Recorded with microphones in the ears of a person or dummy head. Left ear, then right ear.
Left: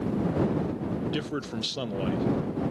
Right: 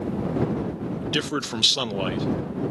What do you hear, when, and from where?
1.0 s a man speaking: 35° right (ahead or behind)